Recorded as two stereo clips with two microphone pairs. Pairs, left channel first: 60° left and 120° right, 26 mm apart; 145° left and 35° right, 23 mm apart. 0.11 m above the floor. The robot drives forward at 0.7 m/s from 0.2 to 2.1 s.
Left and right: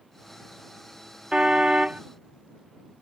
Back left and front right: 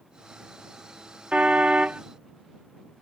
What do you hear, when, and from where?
1.3 s a car horn: 60° right; by 2.0 s 65° right